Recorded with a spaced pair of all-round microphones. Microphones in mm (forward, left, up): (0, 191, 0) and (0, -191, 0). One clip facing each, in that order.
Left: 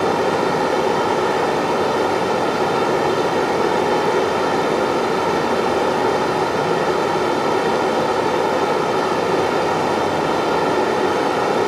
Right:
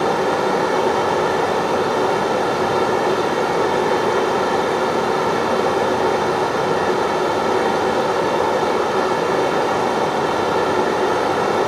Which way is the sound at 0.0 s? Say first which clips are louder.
Left 1 dB; 40° left (ahead or behind).